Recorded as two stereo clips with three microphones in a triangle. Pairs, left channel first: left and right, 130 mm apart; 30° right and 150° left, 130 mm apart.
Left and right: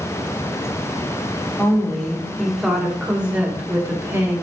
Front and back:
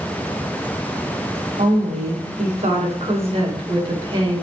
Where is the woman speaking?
170° left, 2.5 m; by 4.4 s 155° right, 2.5 m.